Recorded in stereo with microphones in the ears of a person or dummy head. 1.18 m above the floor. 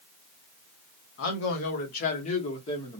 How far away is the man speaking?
About 1.1 m.